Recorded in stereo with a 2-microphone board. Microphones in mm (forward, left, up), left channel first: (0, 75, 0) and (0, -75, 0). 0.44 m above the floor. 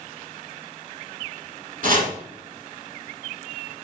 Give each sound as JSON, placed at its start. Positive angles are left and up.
{"t": 1.8, "sound": "chopping", "side_deg": -65, "distance_m": 1.6}